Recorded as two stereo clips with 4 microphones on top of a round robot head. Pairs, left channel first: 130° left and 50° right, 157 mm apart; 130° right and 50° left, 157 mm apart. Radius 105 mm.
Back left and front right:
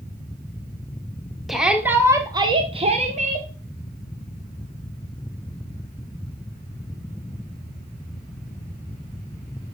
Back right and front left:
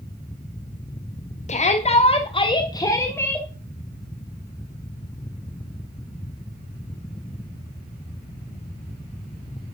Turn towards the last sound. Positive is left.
turn(degrees=-55)